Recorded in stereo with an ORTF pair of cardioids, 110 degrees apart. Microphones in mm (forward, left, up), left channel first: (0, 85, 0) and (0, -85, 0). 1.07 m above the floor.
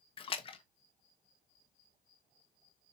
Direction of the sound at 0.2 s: 35° left.